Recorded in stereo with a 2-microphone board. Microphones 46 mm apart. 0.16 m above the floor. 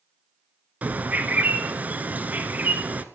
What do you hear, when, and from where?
0.8 s a bird: 35° right (ahead or behind), 0.7 m